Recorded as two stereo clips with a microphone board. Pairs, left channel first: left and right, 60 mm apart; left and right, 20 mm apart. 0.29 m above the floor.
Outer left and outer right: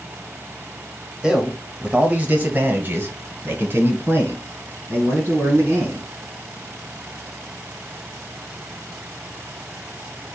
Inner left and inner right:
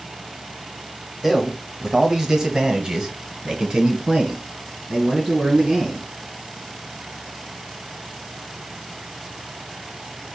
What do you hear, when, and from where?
1.2 s a man speaking: 10° right (ahead or behind), 1.1 m; by 6.0 s 40° right (ahead or behind), 2.5 m